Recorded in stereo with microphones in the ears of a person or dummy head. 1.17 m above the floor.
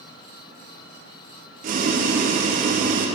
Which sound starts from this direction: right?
Boiling, at 1.6 s.